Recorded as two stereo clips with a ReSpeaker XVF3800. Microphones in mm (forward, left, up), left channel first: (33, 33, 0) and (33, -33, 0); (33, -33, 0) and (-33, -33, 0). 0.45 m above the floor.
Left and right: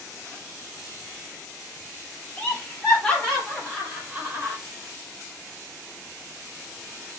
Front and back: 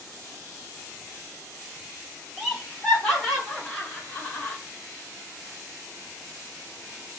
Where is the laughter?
90° left, 1.4 m; by 4.6 s 65° right, 1.3 m.